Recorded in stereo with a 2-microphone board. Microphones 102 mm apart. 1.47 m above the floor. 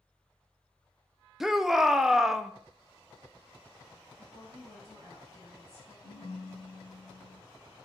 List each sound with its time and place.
1.4 s a shout: 5° right (ahead or behind), 0.5 m
4.2 s a woman speaking: 30° left (ahead or behind), 2.5 m
6.0 s a ringtone: 30° right (ahead or behind), 2.5 m